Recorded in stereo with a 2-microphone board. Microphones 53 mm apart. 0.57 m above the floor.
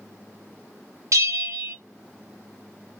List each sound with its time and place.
1.1 s a bell: 65° right (ahead or behind), 0.6 m